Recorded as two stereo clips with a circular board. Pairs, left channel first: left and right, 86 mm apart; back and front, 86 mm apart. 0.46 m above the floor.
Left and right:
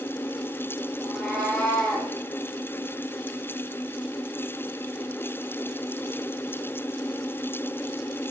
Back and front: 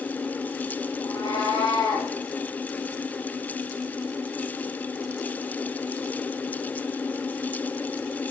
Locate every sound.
1.0 s a cat meowing: straight behind, 4.5 m; by 2.1 s 175° left, 5 m